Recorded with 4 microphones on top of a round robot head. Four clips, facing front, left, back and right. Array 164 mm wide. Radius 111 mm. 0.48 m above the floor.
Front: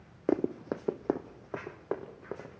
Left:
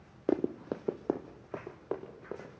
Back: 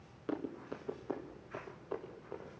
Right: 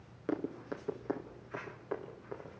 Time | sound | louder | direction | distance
0.3 | running footsteps | left 6 dB, front 10 dB | 35° left | 0.6 m